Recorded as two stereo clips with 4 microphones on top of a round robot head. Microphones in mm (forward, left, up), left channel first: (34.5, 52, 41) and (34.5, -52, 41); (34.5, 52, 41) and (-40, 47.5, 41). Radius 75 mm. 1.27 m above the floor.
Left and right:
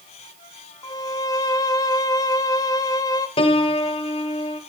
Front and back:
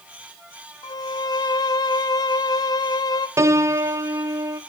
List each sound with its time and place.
0.8 s a violin: 35° left, 1.1 m
3.4 s a piano: 135° left, 1.2 m